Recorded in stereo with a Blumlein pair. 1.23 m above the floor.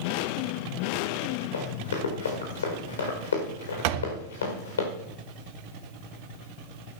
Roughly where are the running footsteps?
Left.